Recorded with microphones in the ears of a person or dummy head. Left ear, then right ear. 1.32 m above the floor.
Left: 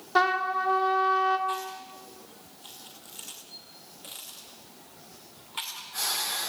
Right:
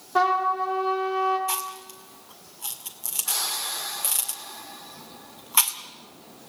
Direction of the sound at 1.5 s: 35° right (ahead or behind).